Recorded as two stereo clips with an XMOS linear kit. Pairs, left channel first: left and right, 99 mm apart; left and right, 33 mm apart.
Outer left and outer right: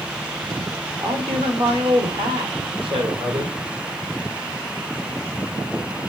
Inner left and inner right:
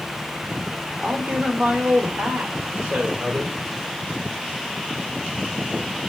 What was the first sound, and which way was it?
A man speaking, 75° right (ahead or behind).